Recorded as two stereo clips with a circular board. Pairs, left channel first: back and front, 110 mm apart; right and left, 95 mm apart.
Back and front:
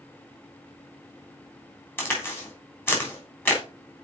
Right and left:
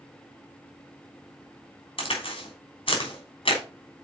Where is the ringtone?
No ringtone in this recording.